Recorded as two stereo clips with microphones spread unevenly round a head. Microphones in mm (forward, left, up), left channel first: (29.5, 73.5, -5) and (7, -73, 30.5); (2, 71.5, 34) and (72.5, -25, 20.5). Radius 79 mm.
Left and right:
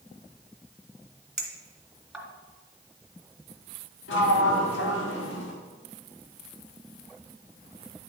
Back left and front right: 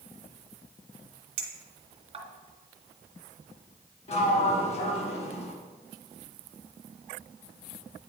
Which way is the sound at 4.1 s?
100° left.